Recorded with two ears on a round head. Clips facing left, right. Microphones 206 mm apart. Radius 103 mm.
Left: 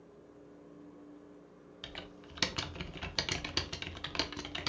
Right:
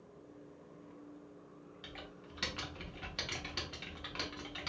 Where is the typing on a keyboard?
60° left (ahead or behind), 0.6 m.